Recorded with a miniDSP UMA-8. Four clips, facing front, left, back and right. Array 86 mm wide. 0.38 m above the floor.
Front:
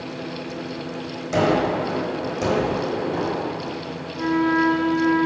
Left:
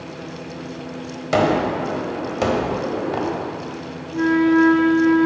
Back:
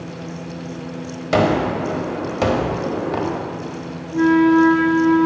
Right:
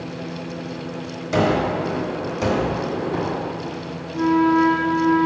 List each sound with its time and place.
1.3 s a gunshot: 140° left, 1.2 m
4.1 s a flute: 145° left, 1.5 m